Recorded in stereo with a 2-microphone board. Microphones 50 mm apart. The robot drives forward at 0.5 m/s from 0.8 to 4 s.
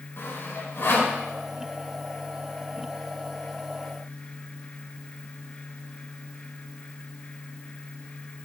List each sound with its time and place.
0.2 s sawing: 55° left (ahead or behind), 1.9 m; by 1.1 s 60° left (ahead or behind), 1.8 m